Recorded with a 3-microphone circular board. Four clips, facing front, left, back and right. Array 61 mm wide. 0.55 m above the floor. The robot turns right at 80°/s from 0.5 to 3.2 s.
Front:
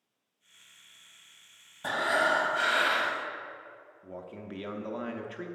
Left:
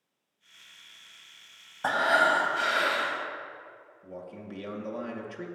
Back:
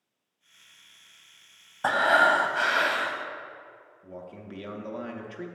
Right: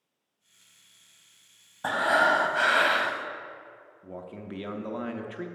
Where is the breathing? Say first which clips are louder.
Even, back 6 dB; 170° left, 0.6 m; by 3.2 s 80° right, 0.6 m.